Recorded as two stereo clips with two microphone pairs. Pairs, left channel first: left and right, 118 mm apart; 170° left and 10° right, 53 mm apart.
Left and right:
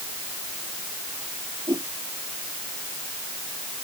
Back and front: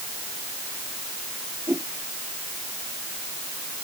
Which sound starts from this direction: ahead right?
A whoosh, at 1.7 s.